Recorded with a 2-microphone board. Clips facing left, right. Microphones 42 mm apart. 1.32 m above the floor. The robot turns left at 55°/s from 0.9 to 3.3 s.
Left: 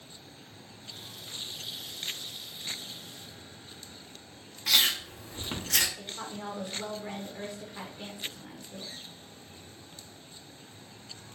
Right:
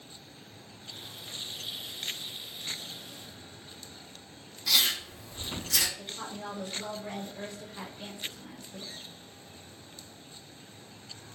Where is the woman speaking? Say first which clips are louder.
Even; 25° left (ahead or behind), 0.6 m.